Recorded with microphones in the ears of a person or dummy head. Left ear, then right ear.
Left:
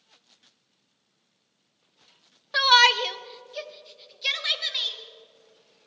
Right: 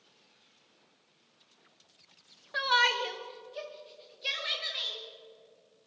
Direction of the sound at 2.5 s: 30° left (ahead or behind).